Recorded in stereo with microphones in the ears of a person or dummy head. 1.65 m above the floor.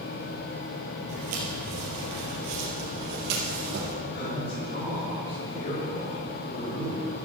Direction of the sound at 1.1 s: 40° right (ahead or behind).